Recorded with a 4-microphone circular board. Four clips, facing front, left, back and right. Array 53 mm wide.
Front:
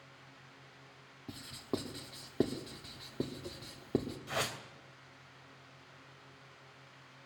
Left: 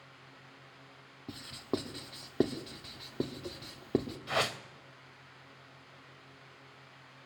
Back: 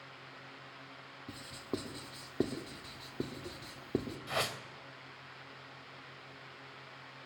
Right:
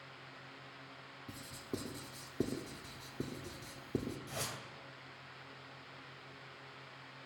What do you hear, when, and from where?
1.3 s writing: 85° left, 1.7 m
4.3 s a whoosh: 100° left, 1.5 m